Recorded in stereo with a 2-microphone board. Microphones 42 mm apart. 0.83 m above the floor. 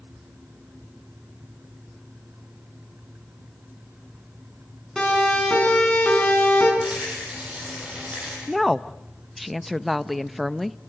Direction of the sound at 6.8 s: 30° right (ahead or behind).